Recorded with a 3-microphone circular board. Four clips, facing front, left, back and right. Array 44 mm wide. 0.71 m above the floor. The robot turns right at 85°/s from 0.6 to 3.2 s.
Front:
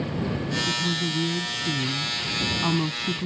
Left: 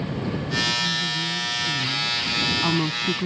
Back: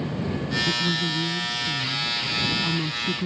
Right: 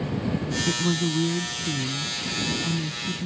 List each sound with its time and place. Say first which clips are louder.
0.7 s a woman speaking: even, back 1 dB; 115° right; by 3.3 s 100° left